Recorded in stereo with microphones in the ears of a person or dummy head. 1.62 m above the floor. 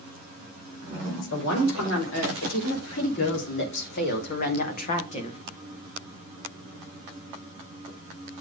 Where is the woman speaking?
75° left (ahead or behind), 5.5 m; by 5.4 s 30° left (ahead or behind), 1.5 m.